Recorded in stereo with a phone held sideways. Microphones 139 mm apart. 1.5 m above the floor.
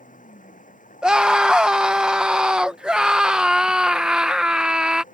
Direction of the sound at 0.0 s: 70° left (ahead or behind).